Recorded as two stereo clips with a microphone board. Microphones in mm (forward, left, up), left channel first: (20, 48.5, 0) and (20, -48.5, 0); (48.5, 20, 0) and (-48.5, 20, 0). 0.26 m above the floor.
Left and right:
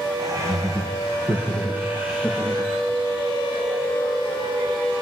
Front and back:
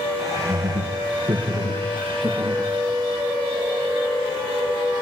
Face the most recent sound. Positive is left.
turn(degrees=-175)